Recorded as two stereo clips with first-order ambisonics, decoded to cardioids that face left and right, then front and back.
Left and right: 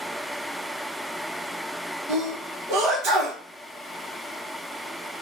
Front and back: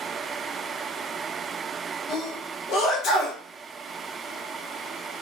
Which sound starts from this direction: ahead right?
A sneeze, at 2.1 s.